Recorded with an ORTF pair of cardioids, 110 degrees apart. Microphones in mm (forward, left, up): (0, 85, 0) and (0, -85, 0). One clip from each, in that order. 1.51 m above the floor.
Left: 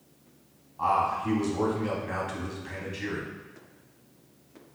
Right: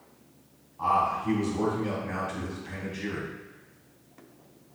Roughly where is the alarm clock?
I don't hear an alarm clock.